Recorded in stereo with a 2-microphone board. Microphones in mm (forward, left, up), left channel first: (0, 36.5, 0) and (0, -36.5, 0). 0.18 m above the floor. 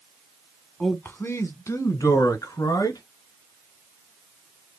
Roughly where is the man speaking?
Left.